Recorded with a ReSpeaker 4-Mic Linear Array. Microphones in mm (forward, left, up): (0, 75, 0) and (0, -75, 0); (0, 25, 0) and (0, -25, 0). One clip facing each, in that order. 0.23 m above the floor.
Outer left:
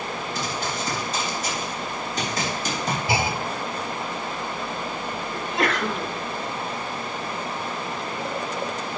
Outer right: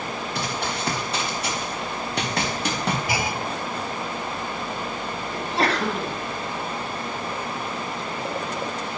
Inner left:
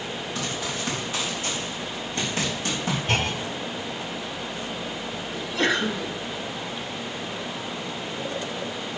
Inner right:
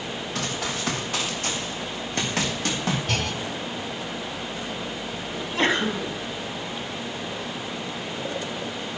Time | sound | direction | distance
0.3 | running footsteps | 75° right (ahead or behind) | 4 m
3.1 | a clunk | 30° left (ahead or behind) | 0.7 m
5.3 | a sneeze | 40° right (ahead or behind) | 1.5 m